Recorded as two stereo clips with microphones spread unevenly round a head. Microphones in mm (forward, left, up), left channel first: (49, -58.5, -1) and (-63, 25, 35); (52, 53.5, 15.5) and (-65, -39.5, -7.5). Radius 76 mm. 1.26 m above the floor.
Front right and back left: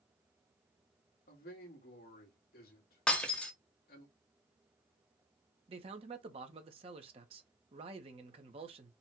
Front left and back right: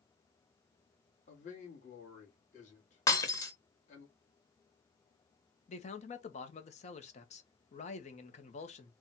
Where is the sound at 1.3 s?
5° right, 1.8 m.